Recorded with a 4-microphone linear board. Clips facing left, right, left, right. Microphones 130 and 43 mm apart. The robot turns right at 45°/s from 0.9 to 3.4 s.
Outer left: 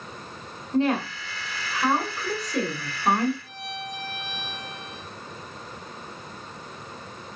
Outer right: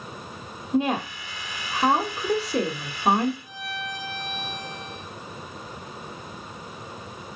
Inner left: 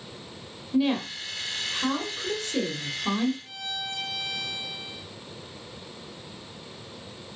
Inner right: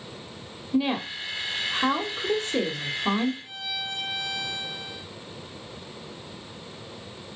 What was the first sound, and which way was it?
A woman speaking, 15° right (ahead or behind).